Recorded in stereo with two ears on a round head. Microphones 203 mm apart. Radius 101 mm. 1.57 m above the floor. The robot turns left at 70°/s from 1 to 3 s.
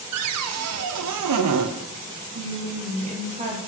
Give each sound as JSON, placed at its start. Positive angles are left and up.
{"t": 0.1, "sound": "a cupboard door", "azimuth_deg": -70, "distance_m": 0.5}
{"t": 2.4, "sound": "a woman speaking", "azimuth_deg": -105, "distance_m": 1.3}